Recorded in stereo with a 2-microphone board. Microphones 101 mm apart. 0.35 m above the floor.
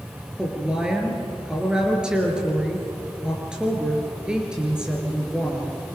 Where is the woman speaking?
10° right (ahead or behind), 5 m.